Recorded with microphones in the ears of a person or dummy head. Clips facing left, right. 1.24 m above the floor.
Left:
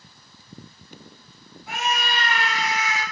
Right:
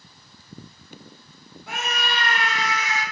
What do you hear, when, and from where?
1.7 s a scream: 50° right (ahead or behind), 1.0 m